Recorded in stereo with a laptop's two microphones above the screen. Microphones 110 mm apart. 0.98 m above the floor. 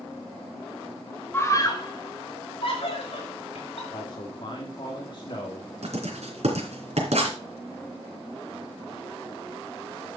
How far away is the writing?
About 3 m.